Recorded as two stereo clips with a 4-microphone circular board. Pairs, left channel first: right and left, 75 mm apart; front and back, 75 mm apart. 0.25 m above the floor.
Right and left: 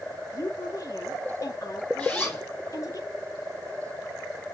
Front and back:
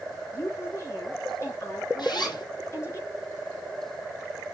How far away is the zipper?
About 3.5 m.